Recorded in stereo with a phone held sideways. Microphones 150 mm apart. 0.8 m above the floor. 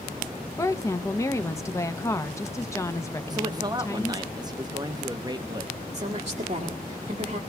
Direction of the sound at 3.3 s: 25° right (ahead or behind).